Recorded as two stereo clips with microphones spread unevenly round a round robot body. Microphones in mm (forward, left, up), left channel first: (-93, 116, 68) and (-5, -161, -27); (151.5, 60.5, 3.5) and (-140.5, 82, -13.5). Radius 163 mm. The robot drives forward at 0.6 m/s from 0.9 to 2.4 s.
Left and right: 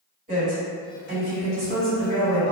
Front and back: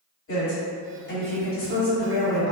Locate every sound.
0.3 s a woman speaking: 40° right, 1.7 m; by 2.5 s 90° right, 1.4 m